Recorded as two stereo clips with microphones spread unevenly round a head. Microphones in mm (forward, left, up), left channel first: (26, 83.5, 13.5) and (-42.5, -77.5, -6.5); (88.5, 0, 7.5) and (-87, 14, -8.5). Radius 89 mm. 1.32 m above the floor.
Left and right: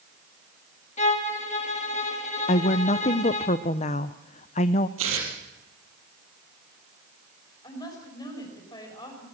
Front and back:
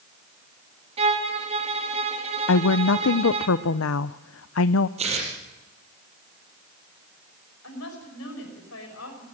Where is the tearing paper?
125° right, 5.5 m.